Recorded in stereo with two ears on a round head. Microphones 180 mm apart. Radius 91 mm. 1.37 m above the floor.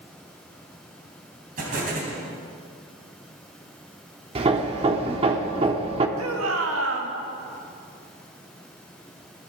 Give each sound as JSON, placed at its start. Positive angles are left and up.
{"t": 1.6, "sound": "an explosion", "side_deg": -45, "distance_m": 3.5}
{"t": 4.3, "sound": "hammering", "side_deg": -30, "distance_m": 1.1}
{"t": 6.2, "sound": "a shout", "side_deg": -80, "distance_m": 2.0}